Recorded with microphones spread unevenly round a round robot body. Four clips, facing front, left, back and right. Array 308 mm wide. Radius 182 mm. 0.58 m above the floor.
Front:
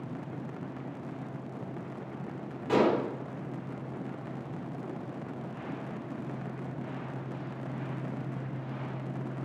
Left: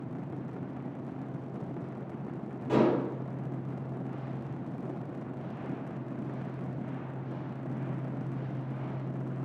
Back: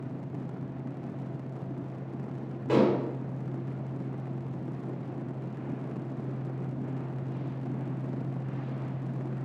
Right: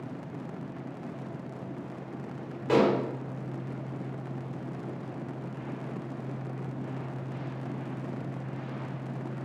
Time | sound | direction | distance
2.7 | dishes clattering | 80° right | 1.5 m